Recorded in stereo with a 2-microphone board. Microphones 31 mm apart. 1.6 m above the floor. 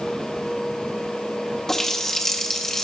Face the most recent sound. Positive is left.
turn(degrees=10)  # may be behind; listen again after turning